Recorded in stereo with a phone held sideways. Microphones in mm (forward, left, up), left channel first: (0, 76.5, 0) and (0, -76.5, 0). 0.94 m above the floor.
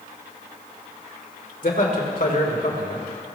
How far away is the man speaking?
About 3 m.